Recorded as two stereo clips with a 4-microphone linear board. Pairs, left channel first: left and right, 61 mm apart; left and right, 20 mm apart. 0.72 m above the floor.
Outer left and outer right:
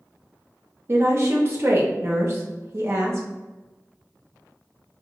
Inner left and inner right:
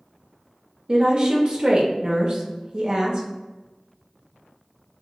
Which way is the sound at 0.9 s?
45° right (ahead or behind).